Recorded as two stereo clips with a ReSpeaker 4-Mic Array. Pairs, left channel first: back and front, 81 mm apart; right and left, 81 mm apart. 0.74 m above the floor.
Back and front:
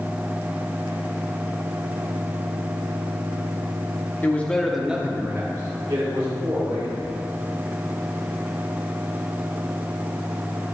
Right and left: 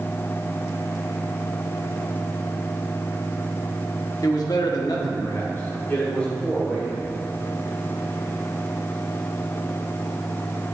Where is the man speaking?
120° right, 1.4 m; by 7.0 s 10° right, 3 m.